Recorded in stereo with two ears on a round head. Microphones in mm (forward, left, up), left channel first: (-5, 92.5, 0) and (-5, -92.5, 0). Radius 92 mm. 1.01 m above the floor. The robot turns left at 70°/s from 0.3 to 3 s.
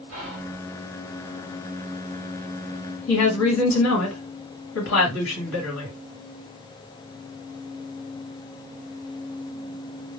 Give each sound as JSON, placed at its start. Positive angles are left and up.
{"t": 0.1, "sound": "whispering", "side_deg": -80, "distance_m": 2.0}
{"t": 3.1, "sound": "a woman speaking", "side_deg": 70, "distance_m": 2.0}